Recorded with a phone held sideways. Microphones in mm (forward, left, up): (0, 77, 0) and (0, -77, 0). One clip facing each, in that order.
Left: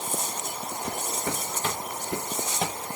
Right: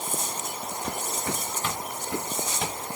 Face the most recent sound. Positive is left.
turn(degrees=45)  # may be behind; listen again after turning